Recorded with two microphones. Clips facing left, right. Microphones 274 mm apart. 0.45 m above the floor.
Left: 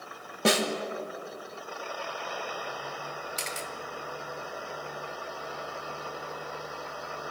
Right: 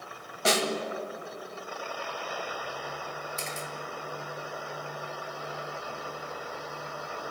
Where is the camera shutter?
80° left, 0.9 m.